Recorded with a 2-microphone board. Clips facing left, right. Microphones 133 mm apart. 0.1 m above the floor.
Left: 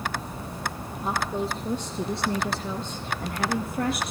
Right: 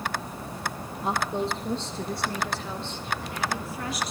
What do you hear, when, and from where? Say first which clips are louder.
1.0 s a woman speaking: right 1 dB; 5° right (ahead or behind), 2.5 m; by 4.1 s 55° left (ahead or behind), 3 m